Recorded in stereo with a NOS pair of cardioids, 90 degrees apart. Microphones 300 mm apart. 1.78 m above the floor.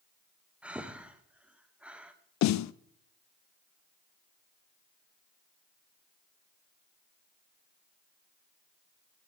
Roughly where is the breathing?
Ahead.